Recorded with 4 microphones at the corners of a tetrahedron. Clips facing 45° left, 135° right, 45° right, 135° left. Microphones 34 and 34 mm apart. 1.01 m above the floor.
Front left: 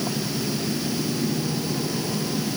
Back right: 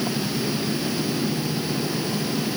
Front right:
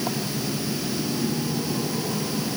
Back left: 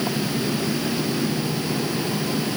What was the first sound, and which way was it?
Only background noise.